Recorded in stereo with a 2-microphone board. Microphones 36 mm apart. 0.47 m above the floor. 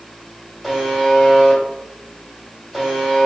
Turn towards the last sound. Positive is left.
turn(degrees=5)  # may be behind; listen again after turning